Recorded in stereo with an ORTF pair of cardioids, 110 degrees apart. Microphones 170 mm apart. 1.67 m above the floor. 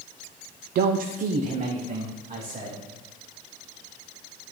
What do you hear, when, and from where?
0.8 s a man speaking: 70° right, 0.7 m; by 2.8 s 30° right, 3 m